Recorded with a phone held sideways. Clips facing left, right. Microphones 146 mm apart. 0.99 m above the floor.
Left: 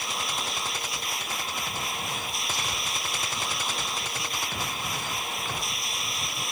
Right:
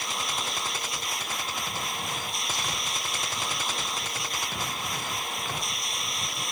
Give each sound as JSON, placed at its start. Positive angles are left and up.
{"t": 0.0, "sound": "a machine running", "side_deg": 0}